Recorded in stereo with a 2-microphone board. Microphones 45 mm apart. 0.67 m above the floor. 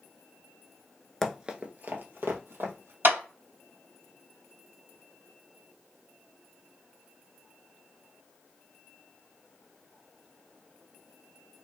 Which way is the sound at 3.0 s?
65° right (ahead or behind).